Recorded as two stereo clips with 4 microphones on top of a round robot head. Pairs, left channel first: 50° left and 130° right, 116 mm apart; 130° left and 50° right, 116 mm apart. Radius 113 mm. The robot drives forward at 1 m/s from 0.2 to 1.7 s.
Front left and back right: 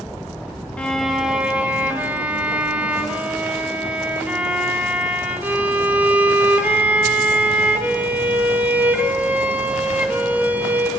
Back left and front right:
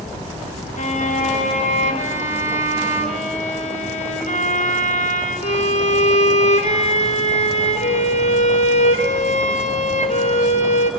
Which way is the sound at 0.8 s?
130° left.